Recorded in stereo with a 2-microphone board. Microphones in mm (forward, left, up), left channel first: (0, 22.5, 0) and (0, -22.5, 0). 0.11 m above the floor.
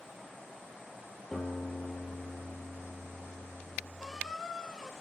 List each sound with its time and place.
1.3 s a guitar: 5° right (ahead or behind), 3 m
4.0 s a squeak: centre (ahead or behind), 0.7 m